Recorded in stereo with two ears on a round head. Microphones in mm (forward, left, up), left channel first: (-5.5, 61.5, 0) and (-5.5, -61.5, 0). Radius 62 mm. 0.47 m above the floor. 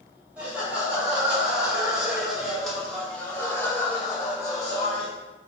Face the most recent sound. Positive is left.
turn(degrees=20)  # may be behind; listen again after turning